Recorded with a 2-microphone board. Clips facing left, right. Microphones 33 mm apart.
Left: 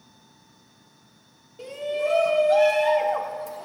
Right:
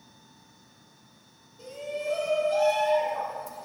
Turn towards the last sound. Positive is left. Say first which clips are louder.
# left 7 dB
turn(degrees=65)  # may be behind; listen again after turning